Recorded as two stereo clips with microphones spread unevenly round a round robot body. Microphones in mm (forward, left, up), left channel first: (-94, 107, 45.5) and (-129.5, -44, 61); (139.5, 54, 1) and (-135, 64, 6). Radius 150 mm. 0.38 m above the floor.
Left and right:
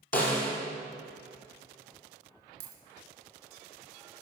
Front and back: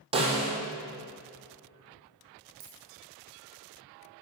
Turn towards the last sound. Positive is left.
turn(degrees=-110)